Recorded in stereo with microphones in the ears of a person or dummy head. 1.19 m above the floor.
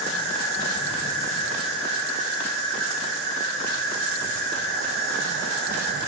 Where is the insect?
70° right (ahead or behind), 1.6 m.